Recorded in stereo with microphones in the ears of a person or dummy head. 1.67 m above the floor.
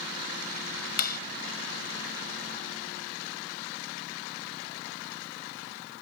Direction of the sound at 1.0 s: 55° left (ahead or behind).